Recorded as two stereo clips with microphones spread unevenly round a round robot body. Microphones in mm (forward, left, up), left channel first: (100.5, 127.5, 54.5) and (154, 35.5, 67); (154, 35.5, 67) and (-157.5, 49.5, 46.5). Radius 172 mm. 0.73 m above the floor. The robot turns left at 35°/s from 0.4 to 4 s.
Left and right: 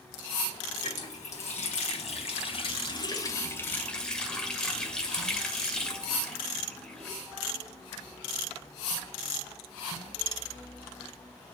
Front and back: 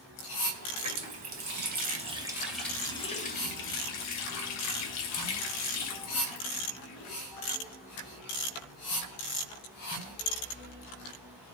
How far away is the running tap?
About 2 m.